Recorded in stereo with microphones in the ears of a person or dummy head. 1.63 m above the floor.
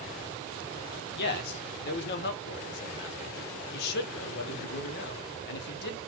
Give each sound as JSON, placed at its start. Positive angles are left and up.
{"t": 1.2, "sound": "a man speaking", "side_deg": 65, "distance_m": 1.1}